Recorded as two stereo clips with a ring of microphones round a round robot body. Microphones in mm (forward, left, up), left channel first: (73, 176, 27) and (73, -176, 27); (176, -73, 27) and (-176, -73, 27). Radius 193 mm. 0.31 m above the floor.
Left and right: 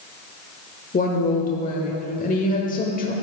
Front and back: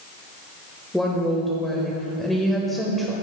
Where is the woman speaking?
90° left, 1.0 m.